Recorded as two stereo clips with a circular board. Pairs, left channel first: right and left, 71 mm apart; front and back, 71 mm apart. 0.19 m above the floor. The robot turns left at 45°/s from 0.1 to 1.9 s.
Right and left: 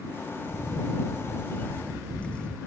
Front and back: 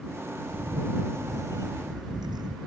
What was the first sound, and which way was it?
A camera shutter, 100° right.